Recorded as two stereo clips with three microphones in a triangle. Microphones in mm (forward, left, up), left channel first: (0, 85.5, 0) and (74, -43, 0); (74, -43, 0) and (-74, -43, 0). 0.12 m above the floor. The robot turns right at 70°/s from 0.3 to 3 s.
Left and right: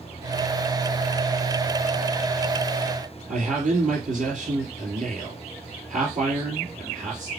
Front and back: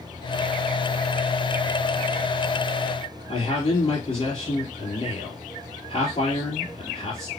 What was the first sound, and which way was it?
A man speaking, 45° right.